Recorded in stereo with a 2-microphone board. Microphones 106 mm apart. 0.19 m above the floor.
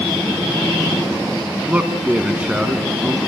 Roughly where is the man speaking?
Centre.